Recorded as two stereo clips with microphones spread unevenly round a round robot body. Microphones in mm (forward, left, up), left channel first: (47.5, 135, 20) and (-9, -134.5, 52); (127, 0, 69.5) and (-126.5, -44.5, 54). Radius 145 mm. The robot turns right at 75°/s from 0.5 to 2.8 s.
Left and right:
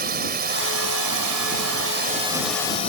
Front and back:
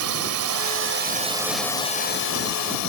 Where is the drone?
160° right; by 2.9 s 10° left.